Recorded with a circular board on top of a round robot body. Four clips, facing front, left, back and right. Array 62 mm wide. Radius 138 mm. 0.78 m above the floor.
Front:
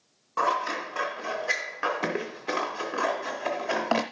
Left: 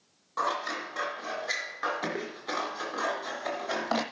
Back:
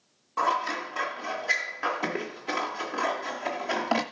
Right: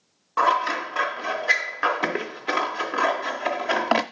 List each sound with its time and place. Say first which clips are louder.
0.4 s scissors: right 10 dB, even; 80° right, 0.5 m